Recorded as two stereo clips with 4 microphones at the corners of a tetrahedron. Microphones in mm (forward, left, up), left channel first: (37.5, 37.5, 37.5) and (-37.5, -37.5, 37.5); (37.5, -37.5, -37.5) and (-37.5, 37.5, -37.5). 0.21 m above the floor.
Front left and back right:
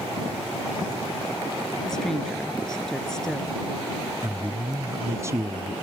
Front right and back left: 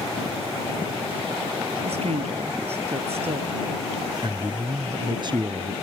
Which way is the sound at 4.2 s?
165° left.